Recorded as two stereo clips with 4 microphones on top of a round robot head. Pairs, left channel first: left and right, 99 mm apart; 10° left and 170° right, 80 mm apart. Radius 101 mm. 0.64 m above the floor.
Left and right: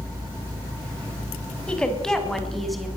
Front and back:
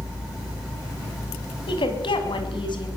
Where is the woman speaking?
10° left, 5.5 m; by 2.9 s straight ahead, 6.5 m.